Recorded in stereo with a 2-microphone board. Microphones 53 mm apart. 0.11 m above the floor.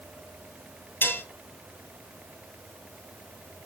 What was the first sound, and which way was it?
Dishes clattering, 45° left (ahead or behind).